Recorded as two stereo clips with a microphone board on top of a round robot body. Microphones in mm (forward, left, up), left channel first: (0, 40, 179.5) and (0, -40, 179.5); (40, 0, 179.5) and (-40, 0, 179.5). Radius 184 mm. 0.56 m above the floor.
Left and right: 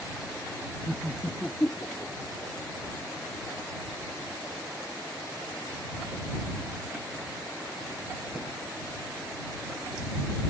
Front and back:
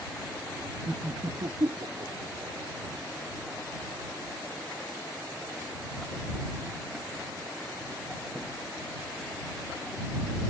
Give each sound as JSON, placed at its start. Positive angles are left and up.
{"t": 0.9, "sound": "laughter", "azimuth_deg": -130}